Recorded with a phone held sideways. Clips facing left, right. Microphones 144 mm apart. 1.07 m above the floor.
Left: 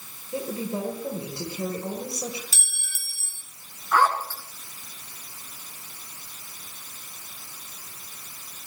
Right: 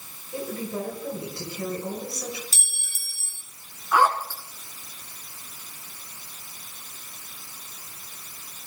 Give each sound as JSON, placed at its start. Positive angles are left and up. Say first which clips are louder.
{"t": 0.3, "sound": "a woman speaking", "louder": "left 1 dB", "side_deg": 25, "distance_m": 4.0}
{"t": 2.5, "sound": "a clink", "louder": "left 1 dB", "side_deg": -35, "distance_m": 1.6}
{"t": 3.9, "sound": "a zipper", "louder": "right 1 dB", "side_deg": -10, "distance_m": 2.0}